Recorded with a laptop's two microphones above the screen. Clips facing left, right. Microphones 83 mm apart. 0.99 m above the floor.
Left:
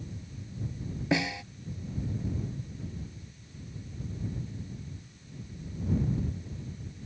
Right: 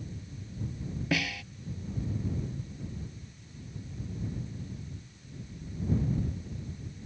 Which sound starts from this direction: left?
A snare drum, at 1.1 s.